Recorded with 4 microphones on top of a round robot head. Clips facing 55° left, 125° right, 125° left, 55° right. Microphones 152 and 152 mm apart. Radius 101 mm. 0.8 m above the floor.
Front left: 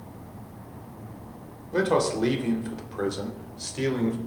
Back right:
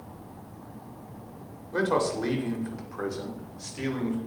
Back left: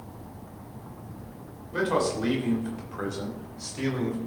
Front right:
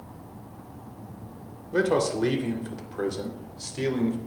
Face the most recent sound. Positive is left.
turn(degrees=5)